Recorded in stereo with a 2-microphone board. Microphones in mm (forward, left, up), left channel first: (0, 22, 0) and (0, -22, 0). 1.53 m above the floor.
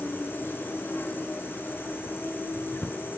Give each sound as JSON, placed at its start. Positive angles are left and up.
{"t": 0.0, "sound": "an insect", "side_deg": 55, "distance_m": 4.5}